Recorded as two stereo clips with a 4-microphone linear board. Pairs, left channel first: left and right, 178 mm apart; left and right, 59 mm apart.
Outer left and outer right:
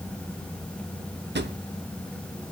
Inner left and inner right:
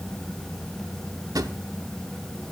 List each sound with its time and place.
1.4 s a drawer: 80° right, 0.8 m